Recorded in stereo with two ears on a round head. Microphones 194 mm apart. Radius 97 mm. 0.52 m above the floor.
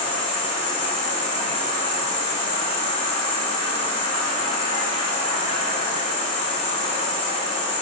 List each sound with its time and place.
0.0 s an insect: 30° left (ahead or behind), 2 m